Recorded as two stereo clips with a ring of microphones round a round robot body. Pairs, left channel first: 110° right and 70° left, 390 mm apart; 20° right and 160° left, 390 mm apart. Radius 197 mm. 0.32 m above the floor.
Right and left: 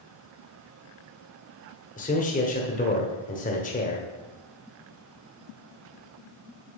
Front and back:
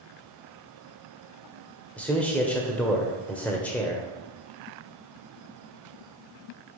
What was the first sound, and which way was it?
A man speaking, 100° right.